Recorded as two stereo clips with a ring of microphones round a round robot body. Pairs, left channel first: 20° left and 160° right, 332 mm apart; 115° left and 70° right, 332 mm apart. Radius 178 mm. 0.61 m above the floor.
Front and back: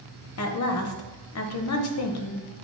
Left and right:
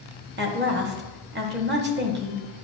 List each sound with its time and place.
0.4 s a woman speaking: 15° right, 1.0 m